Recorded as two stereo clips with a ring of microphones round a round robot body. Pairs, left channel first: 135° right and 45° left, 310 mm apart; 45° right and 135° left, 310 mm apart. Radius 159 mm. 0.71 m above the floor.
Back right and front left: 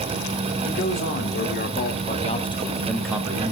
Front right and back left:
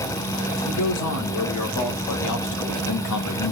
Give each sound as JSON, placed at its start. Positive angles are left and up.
{"t": 0.7, "sound": "a man speaking", "azimuth_deg": -85, "distance_m": 2.0}